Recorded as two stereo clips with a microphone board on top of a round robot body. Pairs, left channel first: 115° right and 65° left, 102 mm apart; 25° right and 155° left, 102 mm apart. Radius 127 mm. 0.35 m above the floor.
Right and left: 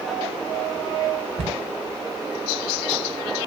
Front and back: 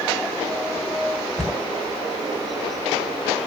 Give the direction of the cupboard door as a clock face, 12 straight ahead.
10 o'clock.